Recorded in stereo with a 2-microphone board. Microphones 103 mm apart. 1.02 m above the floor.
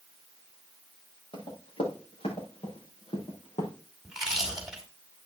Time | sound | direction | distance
1.3 | running footsteps | 60° left (ahead or behind) | 7 m
4.0 | chewing | 5° right (ahead or behind) | 3.5 m